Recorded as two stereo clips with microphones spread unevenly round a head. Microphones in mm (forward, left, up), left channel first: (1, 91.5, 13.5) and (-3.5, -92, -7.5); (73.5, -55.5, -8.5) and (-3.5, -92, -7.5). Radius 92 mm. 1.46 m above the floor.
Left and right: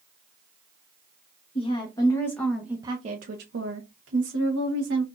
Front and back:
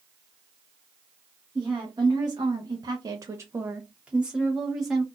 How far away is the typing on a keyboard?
No typing on a keyboard in this recording.